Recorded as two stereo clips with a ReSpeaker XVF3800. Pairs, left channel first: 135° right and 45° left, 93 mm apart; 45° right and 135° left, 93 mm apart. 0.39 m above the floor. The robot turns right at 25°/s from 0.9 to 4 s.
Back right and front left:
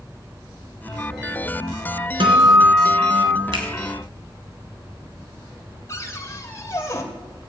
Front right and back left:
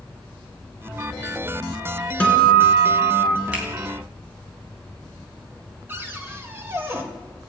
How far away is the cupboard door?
About 1.9 m.